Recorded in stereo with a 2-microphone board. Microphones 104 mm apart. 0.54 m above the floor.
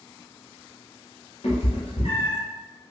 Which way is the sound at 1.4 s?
80° left.